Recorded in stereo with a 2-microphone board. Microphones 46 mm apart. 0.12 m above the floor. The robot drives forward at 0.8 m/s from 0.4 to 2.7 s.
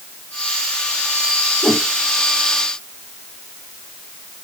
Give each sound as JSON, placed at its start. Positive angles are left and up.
{"t": 1.6, "sound": "a whoosh", "side_deg": 55, "distance_m": 3.5}